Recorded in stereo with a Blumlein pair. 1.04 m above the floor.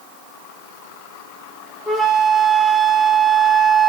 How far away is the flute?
About 0.6 m.